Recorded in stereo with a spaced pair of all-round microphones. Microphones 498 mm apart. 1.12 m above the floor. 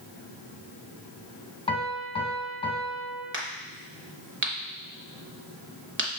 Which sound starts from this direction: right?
A crack, at 3.3 s.